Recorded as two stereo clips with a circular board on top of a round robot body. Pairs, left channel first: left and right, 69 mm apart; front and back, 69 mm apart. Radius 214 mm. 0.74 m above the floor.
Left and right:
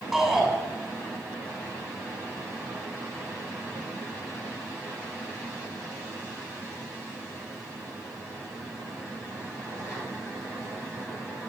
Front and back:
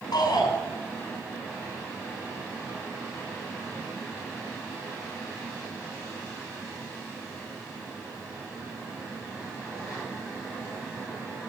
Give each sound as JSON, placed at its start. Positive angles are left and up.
{"t": 0.1, "sound": "a shout", "azimuth_deg": -5, "distance_m": 5.5}